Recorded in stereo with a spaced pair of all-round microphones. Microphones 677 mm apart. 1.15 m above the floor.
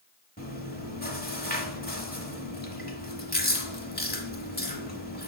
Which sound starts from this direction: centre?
Chewing, at 0.4 s.